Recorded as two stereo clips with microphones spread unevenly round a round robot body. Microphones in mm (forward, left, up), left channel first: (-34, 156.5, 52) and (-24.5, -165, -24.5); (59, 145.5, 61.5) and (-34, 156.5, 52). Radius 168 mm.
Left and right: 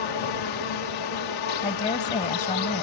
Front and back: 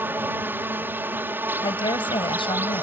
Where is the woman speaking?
20° left.